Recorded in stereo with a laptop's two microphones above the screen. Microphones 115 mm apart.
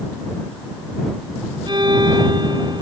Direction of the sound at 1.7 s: 40° right (ahead or behind).